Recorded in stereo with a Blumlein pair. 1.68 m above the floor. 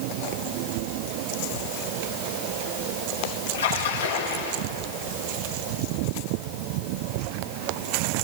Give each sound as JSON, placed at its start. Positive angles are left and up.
{"t": 3.5, "sound": "a splash", "azimuth_deg": 65, "distance_m": 4.5}